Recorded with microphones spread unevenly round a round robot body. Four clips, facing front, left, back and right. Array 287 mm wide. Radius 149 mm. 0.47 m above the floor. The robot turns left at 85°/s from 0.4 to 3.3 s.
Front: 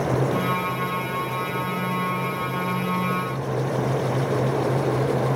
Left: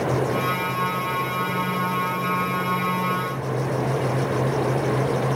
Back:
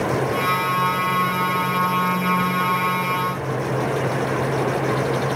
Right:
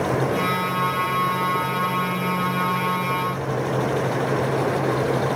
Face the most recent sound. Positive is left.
No sound to turn to.